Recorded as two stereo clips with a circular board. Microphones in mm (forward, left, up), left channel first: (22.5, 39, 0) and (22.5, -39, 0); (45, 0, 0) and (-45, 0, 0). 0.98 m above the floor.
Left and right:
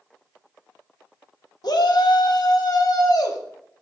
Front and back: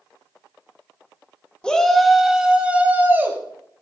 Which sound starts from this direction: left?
A shout, at 1.6 s.